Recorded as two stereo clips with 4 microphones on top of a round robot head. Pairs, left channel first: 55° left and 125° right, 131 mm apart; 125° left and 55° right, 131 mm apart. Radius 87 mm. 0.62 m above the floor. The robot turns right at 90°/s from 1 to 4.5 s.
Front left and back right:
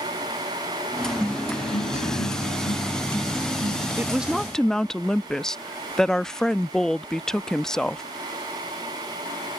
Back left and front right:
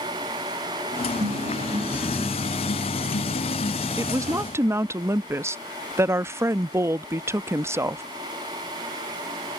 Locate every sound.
1.2 s a guitar: 45° right; by 3.9 s 165° right
4.0 s a woman speaking: 70° right; by 8.0 s 25° right